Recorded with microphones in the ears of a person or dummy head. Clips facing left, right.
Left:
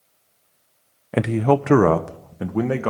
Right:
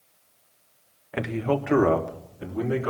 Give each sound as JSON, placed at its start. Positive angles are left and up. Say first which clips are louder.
{"t": 1.1, "sound": "a man speaking", "louder": "left 7 dB", "side_deg": 50, "distance_m": 0.6}